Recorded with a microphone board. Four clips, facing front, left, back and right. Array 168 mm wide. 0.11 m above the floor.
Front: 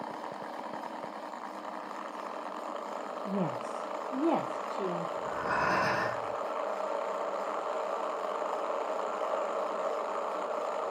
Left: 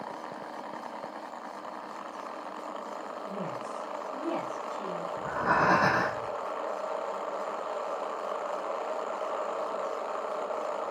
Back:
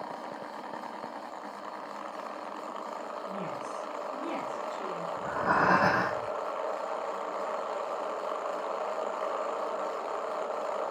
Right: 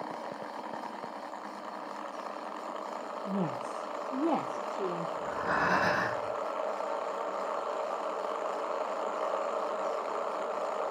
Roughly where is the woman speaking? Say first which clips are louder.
Right 4 dB, front 6 dB; ahead right.